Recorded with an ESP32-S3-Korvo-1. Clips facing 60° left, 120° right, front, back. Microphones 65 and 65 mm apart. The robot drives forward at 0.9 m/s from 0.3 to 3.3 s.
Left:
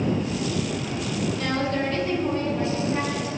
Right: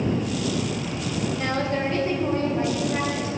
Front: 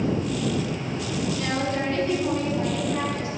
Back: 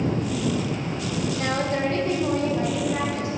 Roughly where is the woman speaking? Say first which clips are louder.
Right 1 dB, back 4 dB; behind.